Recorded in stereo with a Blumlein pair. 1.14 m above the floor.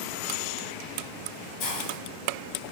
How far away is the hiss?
About 1.8 m.